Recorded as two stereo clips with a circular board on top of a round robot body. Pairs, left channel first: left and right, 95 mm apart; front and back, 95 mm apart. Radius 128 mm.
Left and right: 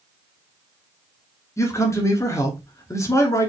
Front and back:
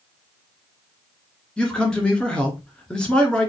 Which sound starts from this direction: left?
A man speaking, at 1.6 s.